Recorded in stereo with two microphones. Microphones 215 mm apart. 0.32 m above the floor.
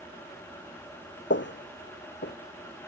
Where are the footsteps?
60° left (ahead or behind); by 2.4 s 55° left (ahead or behind).